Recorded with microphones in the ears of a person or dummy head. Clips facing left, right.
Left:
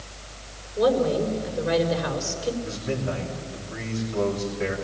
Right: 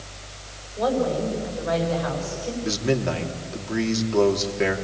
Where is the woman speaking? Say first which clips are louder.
Left 2 dB; 35° left (ahead or behind), 5 m.